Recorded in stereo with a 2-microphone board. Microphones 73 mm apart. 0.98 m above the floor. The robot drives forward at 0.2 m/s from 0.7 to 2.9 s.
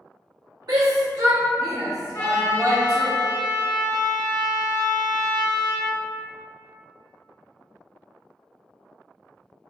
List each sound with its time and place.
0.7 s a shout: 65° right (ahead or behind), 1.2 m; by 3.1 s 50° right (ahead or behind), 1.4 m
2.1 s a trumpet: 45° left (ahead or behind), 1.0 m; by 5.9 s 55° left (ahead or behind), 0.9 m